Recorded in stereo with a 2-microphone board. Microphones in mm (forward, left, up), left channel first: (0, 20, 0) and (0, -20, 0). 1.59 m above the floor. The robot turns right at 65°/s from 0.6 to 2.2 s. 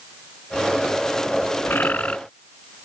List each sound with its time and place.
1.6 s a bird: 115° left; by 2.2 s 145° left